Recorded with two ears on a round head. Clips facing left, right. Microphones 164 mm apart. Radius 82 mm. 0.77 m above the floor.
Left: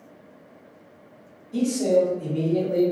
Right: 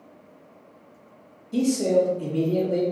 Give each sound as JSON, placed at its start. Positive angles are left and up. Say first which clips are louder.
{"t": 1.5, "sound": "a man speaking", "louder": "even", "side_deg": -45, "distance_m": 1.1}